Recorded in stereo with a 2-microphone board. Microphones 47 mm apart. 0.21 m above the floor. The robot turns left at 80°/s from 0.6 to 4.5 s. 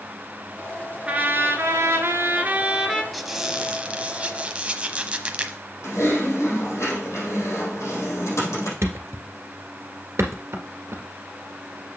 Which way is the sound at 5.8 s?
85° left.